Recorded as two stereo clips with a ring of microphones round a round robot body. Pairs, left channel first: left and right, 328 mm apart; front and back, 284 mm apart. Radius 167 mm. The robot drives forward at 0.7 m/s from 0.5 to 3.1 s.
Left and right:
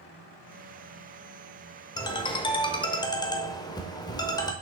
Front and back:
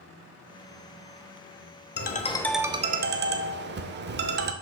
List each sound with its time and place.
2.0 s a ringtone: 20° left, 0.7 m; by 4.5 s 160° left, 0.7 m